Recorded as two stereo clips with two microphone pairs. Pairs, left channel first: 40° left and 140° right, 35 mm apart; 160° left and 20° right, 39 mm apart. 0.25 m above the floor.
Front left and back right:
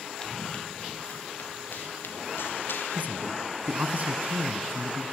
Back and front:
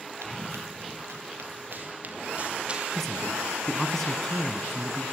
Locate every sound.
0.2 s running footsteps: 30° right, 2.5 m; by 3.4 s 50° left, 4 m
2.9 s a man speaking: 120° right, 2.5 m